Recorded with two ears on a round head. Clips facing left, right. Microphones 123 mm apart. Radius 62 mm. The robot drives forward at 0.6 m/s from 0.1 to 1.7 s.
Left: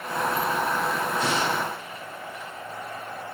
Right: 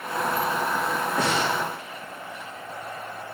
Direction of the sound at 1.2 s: 55° right (ahead or behind).